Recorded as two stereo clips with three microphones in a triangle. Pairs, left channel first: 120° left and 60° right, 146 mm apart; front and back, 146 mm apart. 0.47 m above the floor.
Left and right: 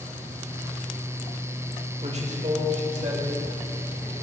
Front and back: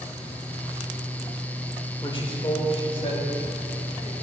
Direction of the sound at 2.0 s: 45° right.